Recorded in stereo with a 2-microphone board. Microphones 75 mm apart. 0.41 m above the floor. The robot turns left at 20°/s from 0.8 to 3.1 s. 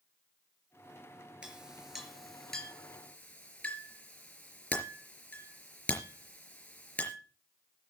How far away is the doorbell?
I don't hear a doorbell.